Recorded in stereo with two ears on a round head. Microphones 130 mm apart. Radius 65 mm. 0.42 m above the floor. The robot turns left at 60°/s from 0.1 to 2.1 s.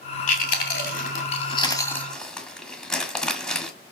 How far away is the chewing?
About 1.9 m.